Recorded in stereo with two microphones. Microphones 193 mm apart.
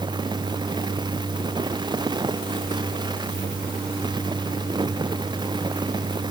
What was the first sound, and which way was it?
Only background noise.